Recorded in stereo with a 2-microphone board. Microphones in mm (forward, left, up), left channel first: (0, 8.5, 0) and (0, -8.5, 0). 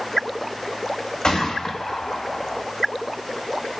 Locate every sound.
1.2 s a gunshot: 60° left (ahead or behind), 3.5 m